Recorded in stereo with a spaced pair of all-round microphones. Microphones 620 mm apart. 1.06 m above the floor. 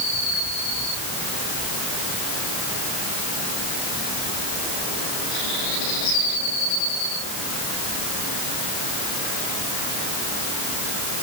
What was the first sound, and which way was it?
Only background noise.